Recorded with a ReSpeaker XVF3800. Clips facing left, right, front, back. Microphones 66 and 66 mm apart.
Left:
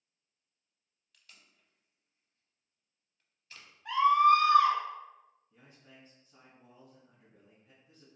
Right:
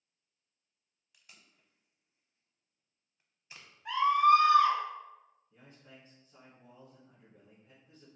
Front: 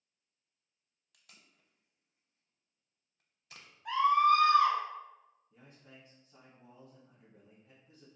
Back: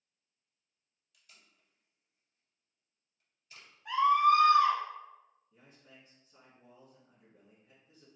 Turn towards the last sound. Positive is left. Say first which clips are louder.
# right 2 dB, front 2 dB
turn(degrees=15)